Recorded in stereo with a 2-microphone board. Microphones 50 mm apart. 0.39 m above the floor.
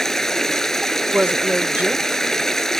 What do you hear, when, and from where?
0.0 s running water: 10° left (ahead or behind)
1.1 s a woman speaking: 30° right (ahead or behind)